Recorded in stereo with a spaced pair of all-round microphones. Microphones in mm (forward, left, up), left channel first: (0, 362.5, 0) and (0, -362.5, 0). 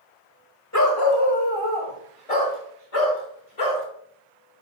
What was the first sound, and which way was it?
A dog barking, 20° left (ahead or behind).